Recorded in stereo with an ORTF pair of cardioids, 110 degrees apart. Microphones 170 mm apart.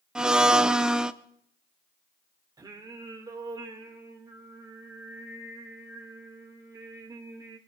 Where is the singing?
20° right, 2 m.